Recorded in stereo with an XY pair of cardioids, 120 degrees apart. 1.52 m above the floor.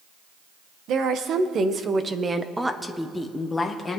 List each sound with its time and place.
0.9 s a woman speaking: 65° right, 1.1 m; by 4.0 s 25° left, 1.3 m